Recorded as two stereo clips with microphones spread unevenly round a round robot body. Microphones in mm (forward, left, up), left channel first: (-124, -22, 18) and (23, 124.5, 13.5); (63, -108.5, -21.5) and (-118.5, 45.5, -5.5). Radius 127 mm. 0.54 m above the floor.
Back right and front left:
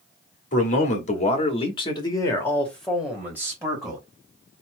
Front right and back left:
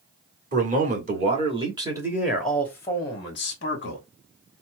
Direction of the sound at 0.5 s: 175° right.